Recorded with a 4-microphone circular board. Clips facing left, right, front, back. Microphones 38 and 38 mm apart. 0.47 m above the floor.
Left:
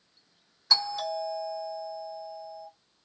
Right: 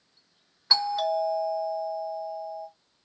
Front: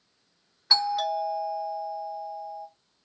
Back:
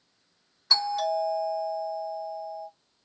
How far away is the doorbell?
About 1.5 m.